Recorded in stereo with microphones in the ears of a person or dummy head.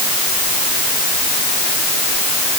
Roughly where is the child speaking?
I don't hear a child speaking.